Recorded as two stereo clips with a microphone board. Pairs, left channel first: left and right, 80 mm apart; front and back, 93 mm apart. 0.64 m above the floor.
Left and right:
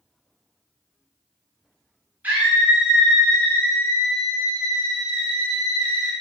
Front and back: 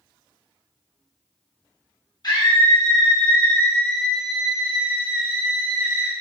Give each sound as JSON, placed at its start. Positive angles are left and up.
{"t": 2.2, "sound": "a scream", "azimuth_deg": -25, "distance_m": 1.1}